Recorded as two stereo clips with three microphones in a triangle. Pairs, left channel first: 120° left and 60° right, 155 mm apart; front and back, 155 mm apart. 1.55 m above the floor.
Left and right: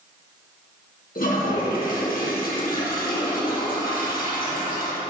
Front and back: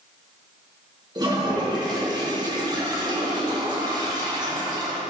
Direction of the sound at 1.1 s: 120° left.